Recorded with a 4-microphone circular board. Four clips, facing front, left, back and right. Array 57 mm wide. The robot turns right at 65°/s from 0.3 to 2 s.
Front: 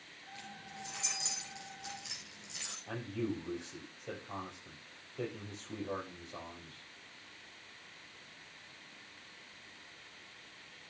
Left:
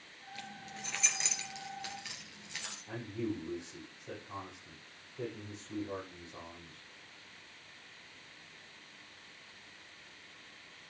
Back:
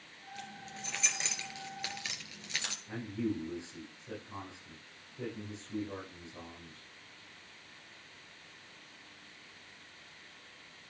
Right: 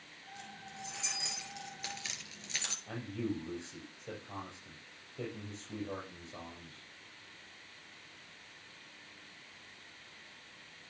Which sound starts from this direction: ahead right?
A man speaking, at 2.9 s.